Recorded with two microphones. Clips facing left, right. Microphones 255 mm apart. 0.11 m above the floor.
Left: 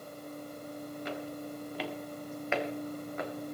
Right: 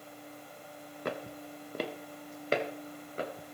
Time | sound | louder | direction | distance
1.1 | footsteps | right 3 dB | 60° right (ahead or behind) | 2.0 m